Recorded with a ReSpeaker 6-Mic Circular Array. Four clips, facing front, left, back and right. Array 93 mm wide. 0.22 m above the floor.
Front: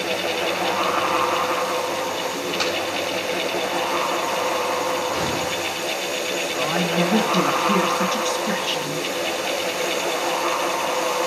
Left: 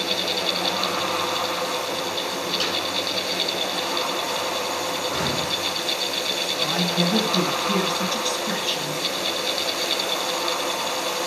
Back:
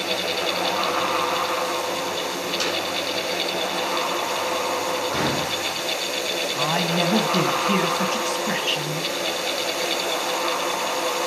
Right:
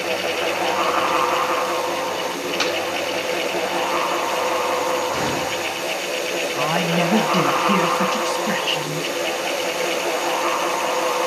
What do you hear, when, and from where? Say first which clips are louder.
2.6 s a snare drum: right 8 dB, front 3 dB; 70° right, 4.5 m
5.1 s a gunshot: right 3 dB, even; 160° right, 8 m
6.5 s a woman speaking: right 4 dB, front 1 dB; 115° right, 1.6 m